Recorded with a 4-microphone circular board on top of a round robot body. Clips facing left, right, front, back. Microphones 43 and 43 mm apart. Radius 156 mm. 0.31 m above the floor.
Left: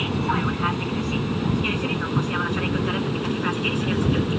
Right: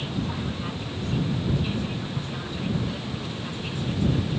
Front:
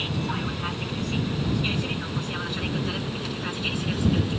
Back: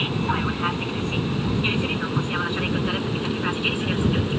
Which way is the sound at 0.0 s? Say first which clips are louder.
Left 7 dB, back 5 dB; 120° left.